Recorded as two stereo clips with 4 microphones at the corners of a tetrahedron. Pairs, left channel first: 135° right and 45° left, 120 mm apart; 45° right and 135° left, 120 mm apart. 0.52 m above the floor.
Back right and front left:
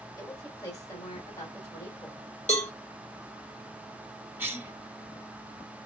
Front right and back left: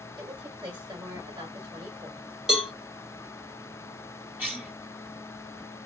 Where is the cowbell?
140° right, 1.3 m.